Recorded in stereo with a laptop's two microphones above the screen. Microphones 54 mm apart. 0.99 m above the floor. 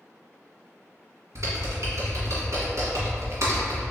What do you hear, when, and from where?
1.4 s typing on a keyboard: 65° right (ahead or behind), 1.5 m